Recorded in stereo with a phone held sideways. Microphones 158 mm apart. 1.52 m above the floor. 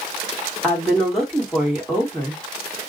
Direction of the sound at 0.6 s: Centre (ahead or behind).